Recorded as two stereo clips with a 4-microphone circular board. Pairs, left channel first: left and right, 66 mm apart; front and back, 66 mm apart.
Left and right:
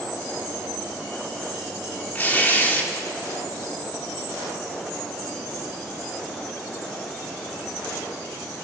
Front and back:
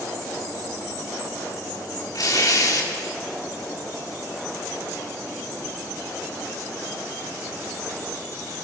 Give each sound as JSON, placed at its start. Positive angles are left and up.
{"t": 2.1, "sound": "tearing paper", "azimuth_deg": 25, "distance_m": 3.0}